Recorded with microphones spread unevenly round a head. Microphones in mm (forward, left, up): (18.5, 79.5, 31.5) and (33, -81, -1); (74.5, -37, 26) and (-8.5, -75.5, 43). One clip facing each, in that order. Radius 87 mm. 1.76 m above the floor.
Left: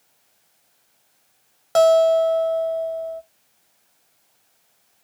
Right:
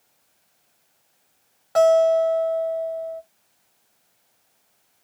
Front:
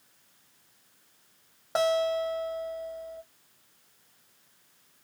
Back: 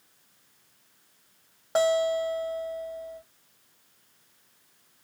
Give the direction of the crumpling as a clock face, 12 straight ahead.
No crumpling in this recording.